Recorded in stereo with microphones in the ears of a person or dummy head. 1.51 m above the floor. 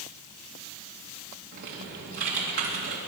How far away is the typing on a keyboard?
About 2 m.